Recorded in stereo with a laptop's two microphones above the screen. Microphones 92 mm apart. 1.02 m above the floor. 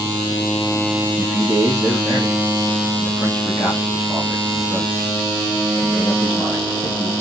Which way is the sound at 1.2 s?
10° right (ahead or behind).